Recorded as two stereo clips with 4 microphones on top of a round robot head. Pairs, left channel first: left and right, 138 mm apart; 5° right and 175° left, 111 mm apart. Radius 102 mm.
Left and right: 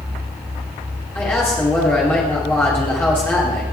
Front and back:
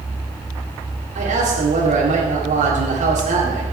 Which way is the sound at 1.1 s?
165° left.